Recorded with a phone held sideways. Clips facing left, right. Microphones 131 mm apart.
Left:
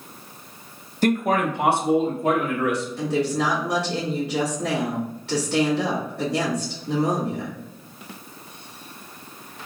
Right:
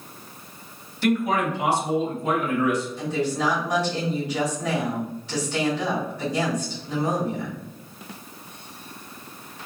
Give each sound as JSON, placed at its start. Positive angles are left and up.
{"t": 1.0, "sound": "a man speaking", "side_deg": 40, "distance_m": 0.7}
{"t": 3.0, "sound": "a woman speaking", "side_deg": 65, "distance_m": 2.0}